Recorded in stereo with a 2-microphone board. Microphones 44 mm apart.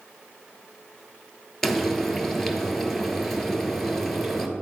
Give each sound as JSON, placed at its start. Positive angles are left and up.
{"t": 1.6, "sound": "frying", "side_deg": 10, "distance_m": 1.0}